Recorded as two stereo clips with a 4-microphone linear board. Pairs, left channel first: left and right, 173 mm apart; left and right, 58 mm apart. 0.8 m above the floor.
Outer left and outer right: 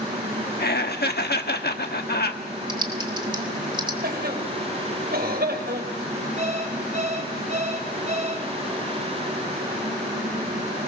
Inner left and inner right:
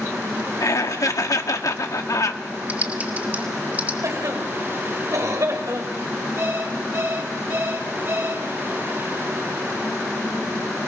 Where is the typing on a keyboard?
25° right (ahead or behind), 2.0 m.